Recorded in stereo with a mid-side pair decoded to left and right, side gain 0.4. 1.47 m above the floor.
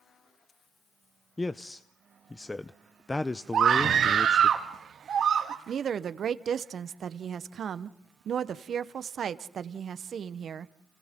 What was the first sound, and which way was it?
A man speaking, 20° left.